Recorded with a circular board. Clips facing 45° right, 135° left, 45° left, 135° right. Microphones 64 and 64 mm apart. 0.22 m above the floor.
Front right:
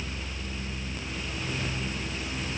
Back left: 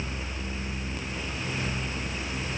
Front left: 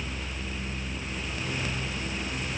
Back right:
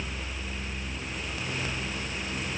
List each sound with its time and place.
Only background noise.